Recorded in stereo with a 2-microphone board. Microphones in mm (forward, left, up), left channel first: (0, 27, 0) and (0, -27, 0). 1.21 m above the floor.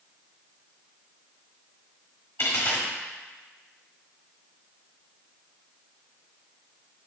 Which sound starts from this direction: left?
A dropped coin, at 2.4 s.